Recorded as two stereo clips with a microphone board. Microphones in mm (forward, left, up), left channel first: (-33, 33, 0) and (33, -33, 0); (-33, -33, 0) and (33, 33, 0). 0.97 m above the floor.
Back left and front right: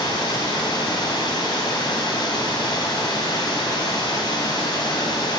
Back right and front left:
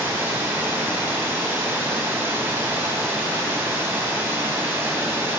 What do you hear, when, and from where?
0.0 s running water: 105° left, 1.5 m